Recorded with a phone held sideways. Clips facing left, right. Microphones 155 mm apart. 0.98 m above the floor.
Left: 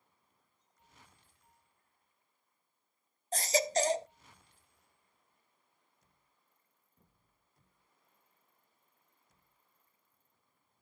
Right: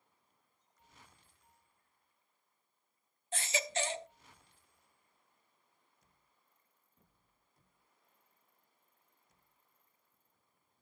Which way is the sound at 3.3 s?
40° left (ahead or behind).